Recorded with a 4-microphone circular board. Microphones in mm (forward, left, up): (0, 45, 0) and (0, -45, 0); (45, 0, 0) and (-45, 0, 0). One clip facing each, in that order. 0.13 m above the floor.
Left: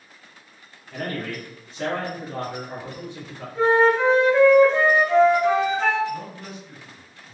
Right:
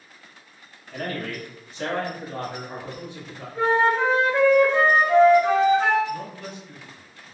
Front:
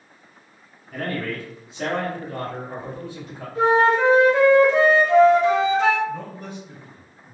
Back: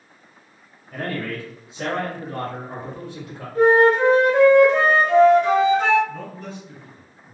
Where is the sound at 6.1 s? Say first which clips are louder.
Even, front 2 dB; 25° left, 1.2 m.